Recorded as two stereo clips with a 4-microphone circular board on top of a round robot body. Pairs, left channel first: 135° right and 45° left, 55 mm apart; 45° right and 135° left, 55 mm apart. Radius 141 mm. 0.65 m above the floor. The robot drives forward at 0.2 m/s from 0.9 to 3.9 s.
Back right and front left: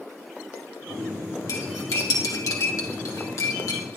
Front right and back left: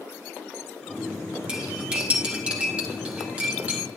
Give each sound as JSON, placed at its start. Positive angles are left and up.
{"t": 1.5, "sound": "cutlery clinking", "azimuth_deg": -155, "distance_m": 1.6}